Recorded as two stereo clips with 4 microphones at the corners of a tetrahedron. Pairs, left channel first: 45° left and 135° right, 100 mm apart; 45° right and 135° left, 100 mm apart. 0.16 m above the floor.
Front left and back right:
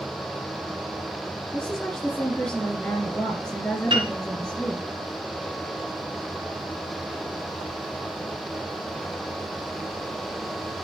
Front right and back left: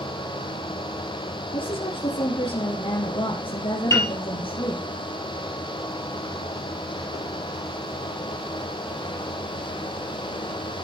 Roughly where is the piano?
Right.